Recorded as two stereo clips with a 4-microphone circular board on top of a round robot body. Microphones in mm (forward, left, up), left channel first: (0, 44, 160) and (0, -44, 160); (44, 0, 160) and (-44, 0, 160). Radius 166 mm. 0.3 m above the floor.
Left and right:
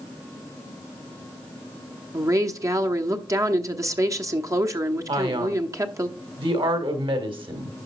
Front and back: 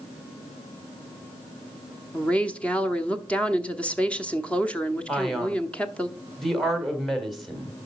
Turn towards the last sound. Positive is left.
turn(degrees=-90)